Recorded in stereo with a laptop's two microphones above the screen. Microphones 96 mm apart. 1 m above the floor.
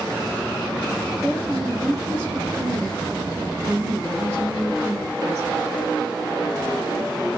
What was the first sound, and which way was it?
A woman speaking, 25° right (ahead or behind).